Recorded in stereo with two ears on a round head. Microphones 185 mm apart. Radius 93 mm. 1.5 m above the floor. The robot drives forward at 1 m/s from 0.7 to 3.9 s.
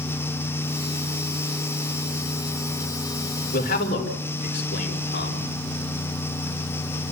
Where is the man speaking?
35° left (ahead or behind), 4 m; by 5.5 s 40° left (ahead or behind), 3.5 m.